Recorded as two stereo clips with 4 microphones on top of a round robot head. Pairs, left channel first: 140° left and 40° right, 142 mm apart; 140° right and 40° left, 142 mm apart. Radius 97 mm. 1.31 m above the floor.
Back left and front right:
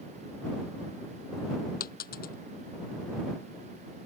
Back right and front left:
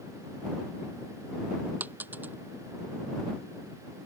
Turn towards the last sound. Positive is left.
turn(degrees=120)